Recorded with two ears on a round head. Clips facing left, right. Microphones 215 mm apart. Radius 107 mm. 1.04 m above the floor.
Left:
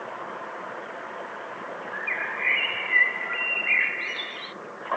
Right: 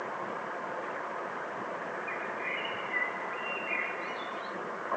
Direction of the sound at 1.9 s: 80° left.